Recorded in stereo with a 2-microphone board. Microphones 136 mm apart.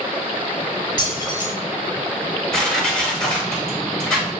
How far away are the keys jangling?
About 1.0 m.